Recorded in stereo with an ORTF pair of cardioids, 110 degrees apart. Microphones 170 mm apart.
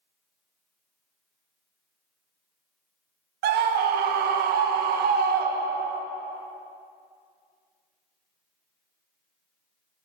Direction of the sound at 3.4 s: 70° right.